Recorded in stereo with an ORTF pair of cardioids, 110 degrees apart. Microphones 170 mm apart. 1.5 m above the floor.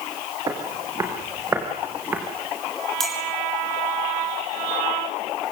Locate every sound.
0.5 s footsteps: 20° right, 5.5 m; by 2.2 s 10° right, 5 m
3.0 s a clink: straight ahead, 6.5 m